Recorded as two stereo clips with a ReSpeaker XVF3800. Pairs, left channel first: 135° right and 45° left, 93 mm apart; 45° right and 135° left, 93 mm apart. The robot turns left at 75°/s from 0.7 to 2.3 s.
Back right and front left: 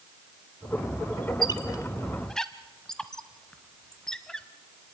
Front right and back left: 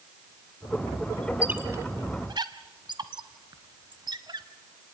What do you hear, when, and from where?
1.4 s a squeak: 150° right, 1.2 m; by 4.5 s 145° left, 1.2 m